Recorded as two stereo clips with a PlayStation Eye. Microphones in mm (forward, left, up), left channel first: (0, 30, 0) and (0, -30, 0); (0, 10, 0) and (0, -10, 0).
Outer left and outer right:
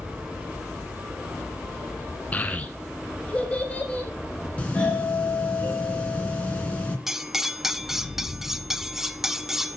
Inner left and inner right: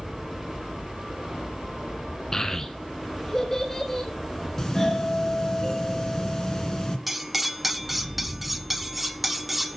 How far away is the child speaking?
About 1.1 m.